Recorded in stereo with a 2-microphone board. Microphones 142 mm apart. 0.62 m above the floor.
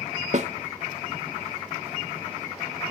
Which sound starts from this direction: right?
A snare drum, at 0.3 s.